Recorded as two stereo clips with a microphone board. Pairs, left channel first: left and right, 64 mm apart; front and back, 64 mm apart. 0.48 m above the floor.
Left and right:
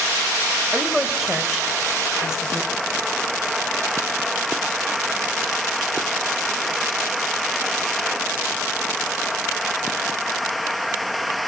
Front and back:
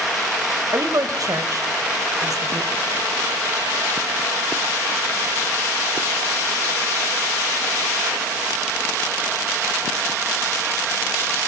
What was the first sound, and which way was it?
A woman speaking, 170° right.